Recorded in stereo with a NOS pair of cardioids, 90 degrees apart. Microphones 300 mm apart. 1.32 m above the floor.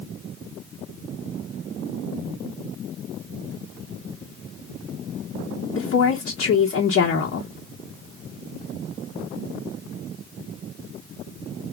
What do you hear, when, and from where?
5.8 s a woman speaking: 50° left, 1.2 m